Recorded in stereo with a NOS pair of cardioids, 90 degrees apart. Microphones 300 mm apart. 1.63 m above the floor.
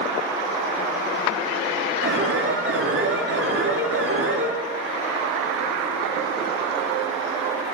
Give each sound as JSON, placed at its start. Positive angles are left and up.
{"t": 2.0, "sound": "an alarm", "azimuth_deg": -50, "distance_m": 5.5}